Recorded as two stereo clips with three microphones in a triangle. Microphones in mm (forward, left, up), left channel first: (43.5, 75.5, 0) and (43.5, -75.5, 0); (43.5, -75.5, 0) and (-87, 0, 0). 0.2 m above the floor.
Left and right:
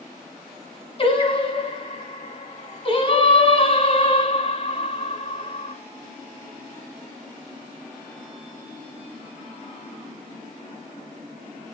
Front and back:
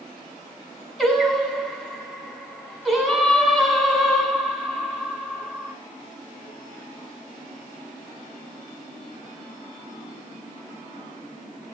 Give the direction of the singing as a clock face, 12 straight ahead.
10 o'clock.